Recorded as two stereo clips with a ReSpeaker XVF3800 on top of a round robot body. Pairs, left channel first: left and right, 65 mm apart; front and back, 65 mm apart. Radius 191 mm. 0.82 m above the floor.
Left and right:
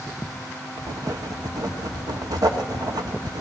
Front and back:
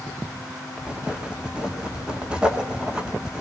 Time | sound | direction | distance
0.8 | writing | 105° right | 2 m